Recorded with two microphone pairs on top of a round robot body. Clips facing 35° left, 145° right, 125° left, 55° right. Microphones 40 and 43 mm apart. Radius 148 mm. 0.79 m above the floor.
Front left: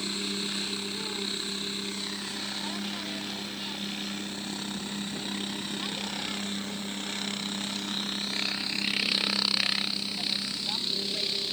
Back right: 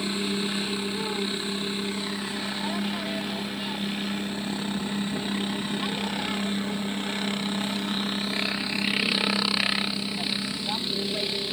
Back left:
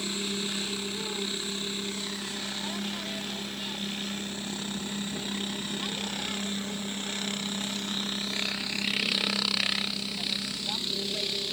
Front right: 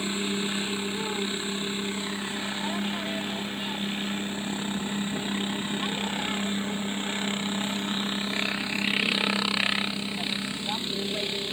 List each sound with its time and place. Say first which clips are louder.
0.0 s a helicopter: back right 5 dB, front right 4 dB; 105° right